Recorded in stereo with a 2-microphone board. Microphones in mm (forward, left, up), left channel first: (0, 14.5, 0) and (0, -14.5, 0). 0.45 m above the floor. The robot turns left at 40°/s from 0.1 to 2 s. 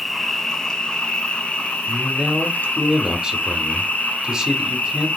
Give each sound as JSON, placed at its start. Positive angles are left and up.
{"t": 0.0, "sound": "an insect", "azimuth_deg": 175, "distance_m": 0.8}
{"t": 1.9, "sound": "a man speaking", "side_deg": -25, "distance_m": 0.8}